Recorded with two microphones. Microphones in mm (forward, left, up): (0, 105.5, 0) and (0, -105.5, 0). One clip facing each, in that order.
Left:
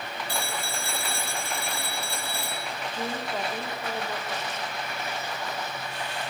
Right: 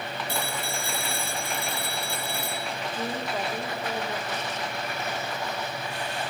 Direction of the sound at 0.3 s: 25° right (ahead or behind).